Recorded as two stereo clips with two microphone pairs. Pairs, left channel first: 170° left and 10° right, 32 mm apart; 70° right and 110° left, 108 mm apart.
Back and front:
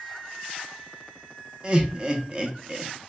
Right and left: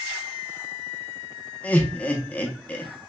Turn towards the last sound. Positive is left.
turn(degrees=-20)